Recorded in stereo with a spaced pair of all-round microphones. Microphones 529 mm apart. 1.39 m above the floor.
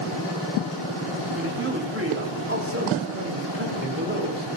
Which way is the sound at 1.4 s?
25° right (ahead or behind).